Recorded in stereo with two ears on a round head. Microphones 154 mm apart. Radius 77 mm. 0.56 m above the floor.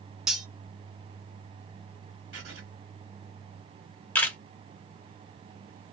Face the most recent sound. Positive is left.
turn(degrees=10)  # may be behind; listen again after turning